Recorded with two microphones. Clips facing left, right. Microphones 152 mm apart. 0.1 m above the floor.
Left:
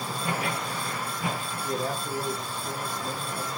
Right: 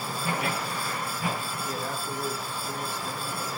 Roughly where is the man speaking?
Left.